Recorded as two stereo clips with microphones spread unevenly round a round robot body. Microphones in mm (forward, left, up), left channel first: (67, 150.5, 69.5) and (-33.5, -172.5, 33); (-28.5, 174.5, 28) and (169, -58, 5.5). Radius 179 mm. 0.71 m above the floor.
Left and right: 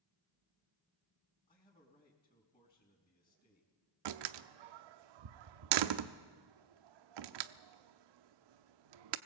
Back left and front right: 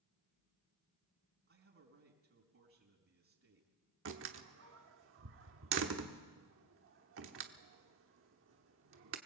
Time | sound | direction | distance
1.5 | a man speaking | 5° right | 4.5 m
4.0 | a door slam | 105° right | 0.8 m